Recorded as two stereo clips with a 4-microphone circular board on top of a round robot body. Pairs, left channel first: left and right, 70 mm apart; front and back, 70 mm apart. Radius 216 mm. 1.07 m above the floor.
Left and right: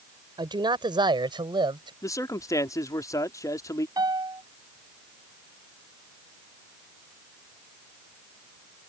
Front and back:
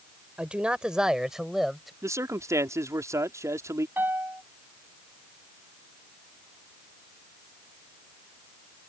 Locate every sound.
0.4 s a man speaking: 105° right; by 1.9 s 90° right
2.0 s a man speaking: 135° left
4.0 s a piano: 115° right